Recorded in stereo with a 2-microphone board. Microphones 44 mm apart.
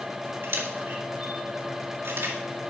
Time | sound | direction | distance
0.4 | a camera shutter | 65° right (ahead or behind) | 2 m